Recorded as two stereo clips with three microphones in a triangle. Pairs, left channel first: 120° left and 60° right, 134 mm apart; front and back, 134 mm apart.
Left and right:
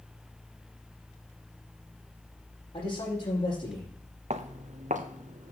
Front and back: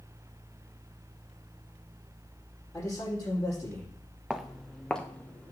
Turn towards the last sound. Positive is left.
turn(degrees=-80)